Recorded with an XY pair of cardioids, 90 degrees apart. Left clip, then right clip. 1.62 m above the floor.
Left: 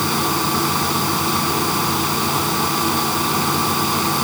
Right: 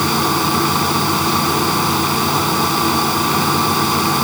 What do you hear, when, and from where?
0.0 s a fan: 25° right